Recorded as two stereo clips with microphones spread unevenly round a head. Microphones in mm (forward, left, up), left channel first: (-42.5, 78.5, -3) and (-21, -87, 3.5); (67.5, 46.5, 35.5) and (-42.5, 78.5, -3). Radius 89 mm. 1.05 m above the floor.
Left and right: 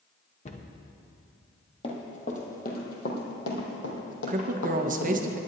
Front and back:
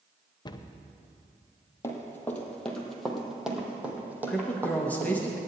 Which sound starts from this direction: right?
A woman speaking, at 4.3 s.